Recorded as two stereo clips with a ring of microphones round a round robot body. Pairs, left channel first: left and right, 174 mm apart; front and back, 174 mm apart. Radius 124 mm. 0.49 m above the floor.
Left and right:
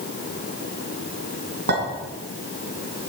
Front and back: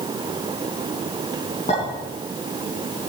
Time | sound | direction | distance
1.7 | a clink | 65° right | 4.5 m